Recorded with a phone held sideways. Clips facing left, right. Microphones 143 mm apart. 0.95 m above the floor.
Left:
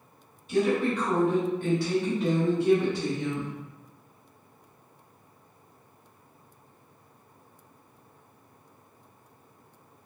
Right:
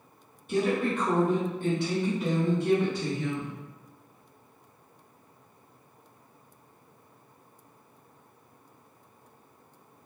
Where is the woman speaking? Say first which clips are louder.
Left 2 dB; 50° right (ahead or behind), 1.4 m; by 3.5 s 25° left (ahead or behind), 1.6 m.